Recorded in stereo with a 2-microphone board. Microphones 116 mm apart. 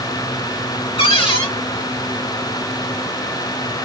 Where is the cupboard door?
50° left (ahead or behind), 1.6 m.